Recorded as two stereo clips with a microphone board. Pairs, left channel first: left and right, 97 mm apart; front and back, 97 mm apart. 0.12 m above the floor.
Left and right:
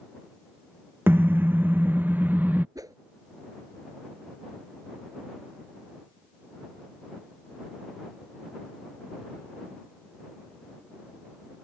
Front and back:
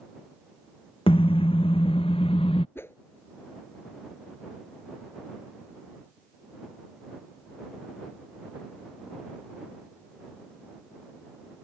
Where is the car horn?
20° right; by 2.6 s 15° right.